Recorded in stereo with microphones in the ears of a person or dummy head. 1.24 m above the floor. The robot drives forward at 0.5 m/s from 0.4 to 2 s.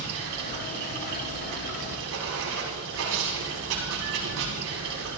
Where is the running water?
80° right, 5.5 m; by 5.2 s 85° right, 5.5 m.